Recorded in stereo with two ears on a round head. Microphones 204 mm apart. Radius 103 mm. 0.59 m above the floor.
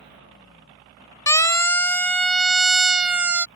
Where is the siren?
15° left (ahead or behind); by 3.5 s 5° right (ahead or behind).